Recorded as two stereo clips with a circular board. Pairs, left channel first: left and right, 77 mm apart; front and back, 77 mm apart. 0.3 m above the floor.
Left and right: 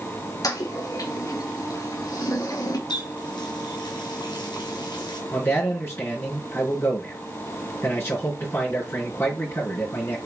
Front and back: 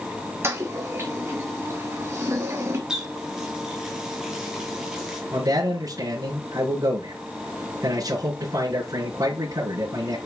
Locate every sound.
0.4 s a toilet flushing: 125° left, 2.5 m
2.9 s a running tap: 100° left, 3 m
5.3 s a man speaking: 145° left, 4.5 m